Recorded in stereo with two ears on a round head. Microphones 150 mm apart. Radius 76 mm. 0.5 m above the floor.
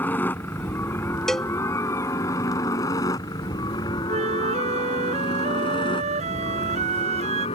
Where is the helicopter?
10° left (ahead or behind); by 7.6 s 30° left (ahead or behind).